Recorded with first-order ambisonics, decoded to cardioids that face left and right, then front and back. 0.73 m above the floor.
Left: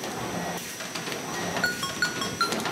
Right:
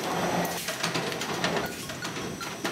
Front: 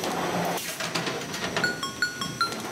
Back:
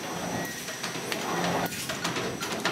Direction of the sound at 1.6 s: 40° left.